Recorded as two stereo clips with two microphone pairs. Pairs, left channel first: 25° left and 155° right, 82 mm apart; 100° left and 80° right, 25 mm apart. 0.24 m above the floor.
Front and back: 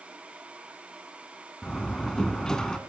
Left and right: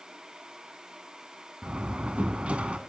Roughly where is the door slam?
Ahead right.